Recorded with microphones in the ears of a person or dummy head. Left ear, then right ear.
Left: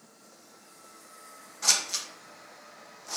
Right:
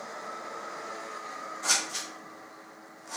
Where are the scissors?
75° left (ahead or behind), 1.0 m.